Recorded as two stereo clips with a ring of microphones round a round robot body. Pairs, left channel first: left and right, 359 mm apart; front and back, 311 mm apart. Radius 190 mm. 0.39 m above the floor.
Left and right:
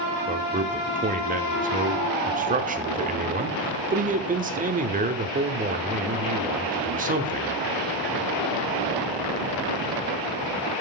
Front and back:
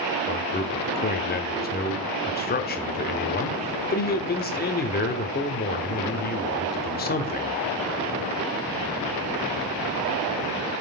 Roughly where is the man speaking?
Ahead right.